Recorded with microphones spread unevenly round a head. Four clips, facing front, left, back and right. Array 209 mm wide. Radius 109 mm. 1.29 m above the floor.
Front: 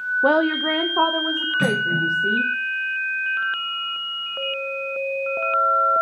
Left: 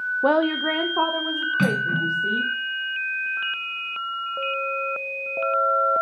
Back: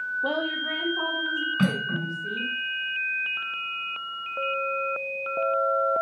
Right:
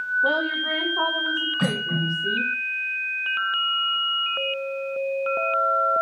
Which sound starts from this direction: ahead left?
A woman speaking, at 0.2 s.